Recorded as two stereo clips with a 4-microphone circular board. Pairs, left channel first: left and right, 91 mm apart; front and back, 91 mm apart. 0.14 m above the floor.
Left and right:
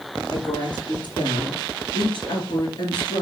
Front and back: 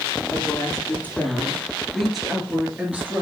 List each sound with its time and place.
0.3 s a woman speaking: 60° left, 3 m; by 3.2 s 115° left, 2.5 m